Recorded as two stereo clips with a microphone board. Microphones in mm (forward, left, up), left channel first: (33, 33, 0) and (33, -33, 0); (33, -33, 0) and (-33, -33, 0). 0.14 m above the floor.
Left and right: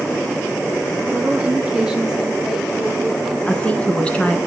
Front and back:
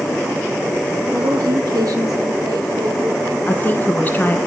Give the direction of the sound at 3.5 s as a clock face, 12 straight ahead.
11 o'clock.